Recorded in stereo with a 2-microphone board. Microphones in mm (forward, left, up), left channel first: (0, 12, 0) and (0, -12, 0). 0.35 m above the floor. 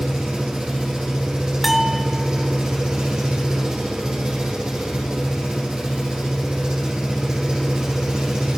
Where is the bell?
5° right (ahead or behind), 0.7 m.